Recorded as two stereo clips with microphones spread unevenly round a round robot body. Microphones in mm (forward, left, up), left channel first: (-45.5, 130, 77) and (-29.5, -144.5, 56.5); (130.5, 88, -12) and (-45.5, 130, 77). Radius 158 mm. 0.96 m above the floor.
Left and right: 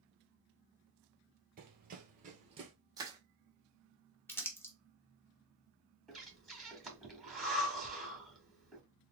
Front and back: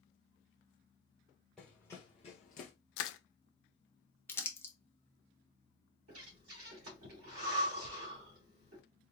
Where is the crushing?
5° right, 0.5 m.